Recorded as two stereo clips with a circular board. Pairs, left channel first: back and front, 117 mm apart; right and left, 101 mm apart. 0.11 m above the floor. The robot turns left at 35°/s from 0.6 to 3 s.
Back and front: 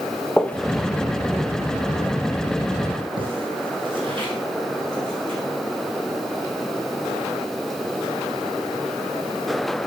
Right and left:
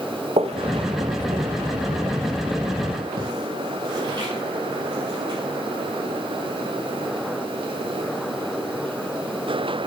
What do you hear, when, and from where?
0.4 s footsteps: 95° left, 0.8 m; by 5.4 s 45° left, 5.5 m